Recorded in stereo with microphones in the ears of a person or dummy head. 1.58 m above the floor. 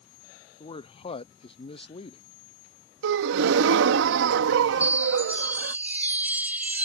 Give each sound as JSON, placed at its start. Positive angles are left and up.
{"t": 0.6, "sound": "a man speaking", "side_deg": 40}
{"t": 3.0, "sound": "a gasp", "side_deg": -65}
{"t": 4.8, "sound": "a chime", "side_deg": -15}